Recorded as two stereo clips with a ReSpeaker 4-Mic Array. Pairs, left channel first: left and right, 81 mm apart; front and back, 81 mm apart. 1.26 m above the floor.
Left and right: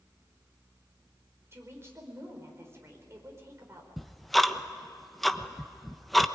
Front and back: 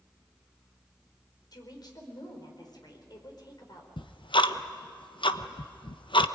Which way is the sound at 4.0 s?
Straight ahead.